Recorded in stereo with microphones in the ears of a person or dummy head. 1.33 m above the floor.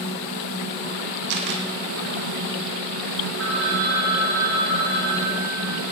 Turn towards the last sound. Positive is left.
turn(degrees=-70)  # may be behind; listen again after turning